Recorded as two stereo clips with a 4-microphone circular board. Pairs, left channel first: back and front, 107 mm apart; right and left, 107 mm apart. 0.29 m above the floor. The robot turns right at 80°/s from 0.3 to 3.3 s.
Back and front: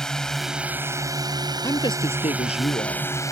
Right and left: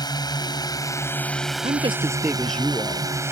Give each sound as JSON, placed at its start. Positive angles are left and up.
{"t": 0.0, "sound": "a drone", "azimuth_deg": -100}
{"t": 1.6, "sound": "a woman speaking", "azimuth_deg": 115}